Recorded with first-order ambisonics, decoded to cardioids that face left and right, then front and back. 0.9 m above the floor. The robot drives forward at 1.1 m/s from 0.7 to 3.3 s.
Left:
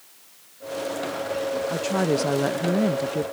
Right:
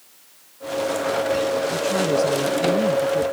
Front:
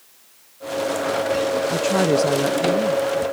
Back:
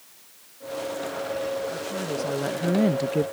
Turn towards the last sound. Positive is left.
turn(degrees=170)